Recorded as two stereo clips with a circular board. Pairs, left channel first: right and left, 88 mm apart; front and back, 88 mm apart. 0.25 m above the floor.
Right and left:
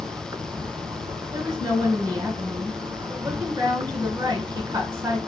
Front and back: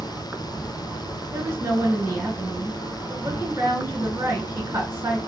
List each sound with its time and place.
0.0 s an insect: 120° left, 0.7 m
1.3 s a woman speaking: 120° left, 3 m